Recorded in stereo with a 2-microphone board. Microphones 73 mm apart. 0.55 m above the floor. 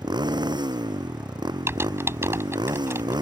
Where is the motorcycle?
85° right.